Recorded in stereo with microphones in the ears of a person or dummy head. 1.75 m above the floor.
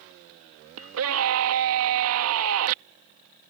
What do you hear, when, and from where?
0.8 s a scream: 80° right